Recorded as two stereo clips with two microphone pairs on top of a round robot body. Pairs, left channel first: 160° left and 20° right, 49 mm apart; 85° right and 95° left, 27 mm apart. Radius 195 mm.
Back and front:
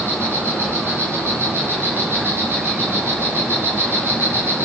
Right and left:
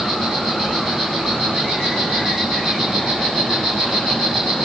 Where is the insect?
20° left, 6.5 m.